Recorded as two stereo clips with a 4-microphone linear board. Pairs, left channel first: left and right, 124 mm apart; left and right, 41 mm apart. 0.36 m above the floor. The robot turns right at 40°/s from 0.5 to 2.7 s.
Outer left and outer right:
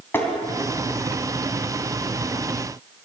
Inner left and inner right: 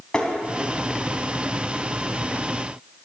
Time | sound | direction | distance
0.1 | tapping | 15° left (ahead or behind) | 3 m